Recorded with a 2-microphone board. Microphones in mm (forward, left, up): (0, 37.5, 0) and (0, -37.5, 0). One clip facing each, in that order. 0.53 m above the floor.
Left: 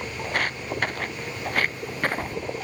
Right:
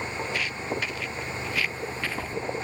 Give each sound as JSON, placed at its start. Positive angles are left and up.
{"t": 0.2, "sound": "footsteps", "side_deg": 55}